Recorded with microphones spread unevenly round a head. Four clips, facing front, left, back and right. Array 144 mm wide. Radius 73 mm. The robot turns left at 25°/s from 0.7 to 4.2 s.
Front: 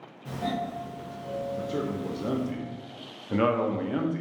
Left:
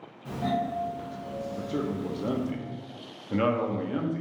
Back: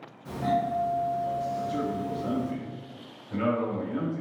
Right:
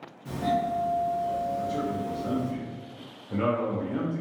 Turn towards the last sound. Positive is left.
turn(degrees=5)